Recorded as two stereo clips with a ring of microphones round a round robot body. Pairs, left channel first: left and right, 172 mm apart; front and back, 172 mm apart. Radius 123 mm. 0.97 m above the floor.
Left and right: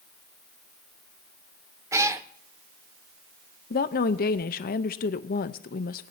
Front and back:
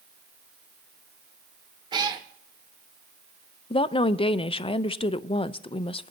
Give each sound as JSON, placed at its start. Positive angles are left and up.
{"t": 1.9, "sound": "a cat meowing", "azimuth_deg": -145, "distance_m": 0.6}
{"t": 3.7, "sound": "a woman speaking", "azimuth_deg": 55, "distance_m": 0.6}